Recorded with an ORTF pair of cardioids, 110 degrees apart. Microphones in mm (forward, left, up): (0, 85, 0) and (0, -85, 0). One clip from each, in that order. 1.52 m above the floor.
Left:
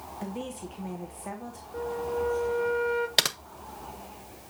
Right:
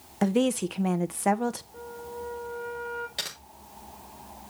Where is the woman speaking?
65° right, 1.1 m.